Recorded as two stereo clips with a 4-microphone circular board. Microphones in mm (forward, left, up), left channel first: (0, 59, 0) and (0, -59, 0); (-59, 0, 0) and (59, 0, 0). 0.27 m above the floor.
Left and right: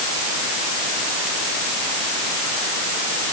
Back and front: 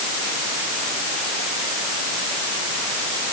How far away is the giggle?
No giggle in this recording.